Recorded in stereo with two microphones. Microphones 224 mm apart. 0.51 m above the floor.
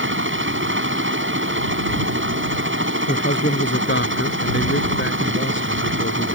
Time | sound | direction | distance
0.0 | a helicopter | 60° right (ahead or behind) | ?
3.1 | a man speaking | 60° left (ahead or behind) | ?